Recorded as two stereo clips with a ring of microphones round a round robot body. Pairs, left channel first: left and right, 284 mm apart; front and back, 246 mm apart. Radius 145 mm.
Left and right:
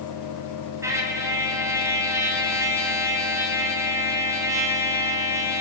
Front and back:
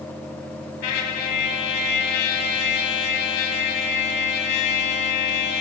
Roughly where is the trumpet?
Ahead.